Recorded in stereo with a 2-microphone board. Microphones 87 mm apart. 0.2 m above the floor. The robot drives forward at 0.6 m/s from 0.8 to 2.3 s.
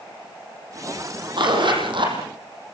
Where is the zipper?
65° right (ahead or behind), 7.5 m; by 2.2 s 70° right (ahead or behind), 7.5 m.